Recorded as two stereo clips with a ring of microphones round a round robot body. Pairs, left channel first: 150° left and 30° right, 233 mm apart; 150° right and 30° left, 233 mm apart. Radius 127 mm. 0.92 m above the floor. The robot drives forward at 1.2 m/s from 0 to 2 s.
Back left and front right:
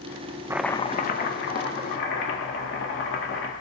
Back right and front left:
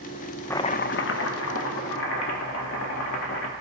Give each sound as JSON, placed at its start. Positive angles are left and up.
{"t": 0.5, "sound": "chopping", "azimuth_deg": -85, "distance_m": 0.5}